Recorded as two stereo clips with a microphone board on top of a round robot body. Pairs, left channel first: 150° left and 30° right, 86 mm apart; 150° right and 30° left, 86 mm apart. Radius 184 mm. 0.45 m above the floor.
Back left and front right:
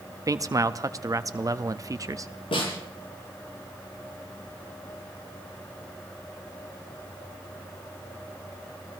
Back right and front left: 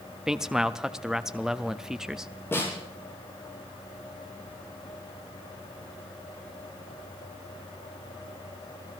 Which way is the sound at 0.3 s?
50° right.